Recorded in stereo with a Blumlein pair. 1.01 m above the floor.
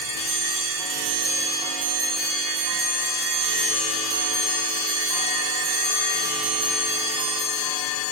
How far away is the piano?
I don't hear a piano.